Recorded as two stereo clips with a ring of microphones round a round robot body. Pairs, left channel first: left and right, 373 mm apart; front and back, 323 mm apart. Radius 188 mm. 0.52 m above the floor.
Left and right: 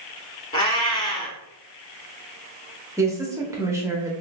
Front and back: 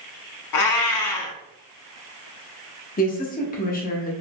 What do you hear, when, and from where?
0.5 s a cat meowing: 15° left, 0.7 m
3.0 s a woman speaking: 15° right, 0.7 m